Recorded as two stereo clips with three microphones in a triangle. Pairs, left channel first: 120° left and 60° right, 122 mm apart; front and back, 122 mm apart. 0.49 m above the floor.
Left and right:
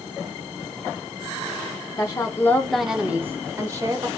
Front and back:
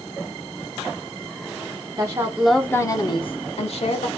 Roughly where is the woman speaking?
Behind left.